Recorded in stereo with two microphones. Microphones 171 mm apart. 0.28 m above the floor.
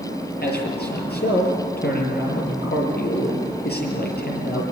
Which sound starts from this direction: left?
A man speaking, at 0.4 s.